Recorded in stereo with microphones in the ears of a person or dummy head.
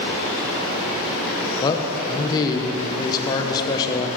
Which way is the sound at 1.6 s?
20° left (ahead or behind).